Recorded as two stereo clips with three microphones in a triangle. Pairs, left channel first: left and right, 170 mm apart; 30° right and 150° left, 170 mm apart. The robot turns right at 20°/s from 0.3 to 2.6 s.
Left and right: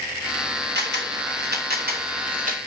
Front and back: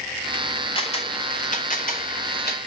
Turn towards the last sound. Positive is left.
turn(degrees=-50)